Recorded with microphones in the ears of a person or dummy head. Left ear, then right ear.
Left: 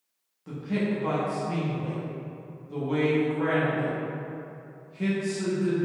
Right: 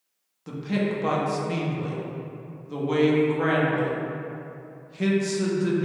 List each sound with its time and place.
0.5 s a man speaking: 20° right (ahead or behind), 0.8 m